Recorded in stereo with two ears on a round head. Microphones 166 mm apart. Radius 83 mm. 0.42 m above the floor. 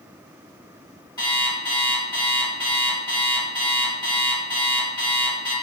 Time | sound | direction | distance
1.2 | an alarm clock | 25° left (ahead or behind) | 1.9 m